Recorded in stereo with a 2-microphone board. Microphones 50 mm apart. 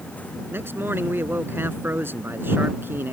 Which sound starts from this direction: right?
A man speaking, at 0.5 s.